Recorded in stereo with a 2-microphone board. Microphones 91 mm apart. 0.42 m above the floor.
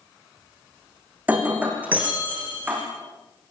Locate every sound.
1.3 s breaking glass: 15° right (ahead or behind), 6 m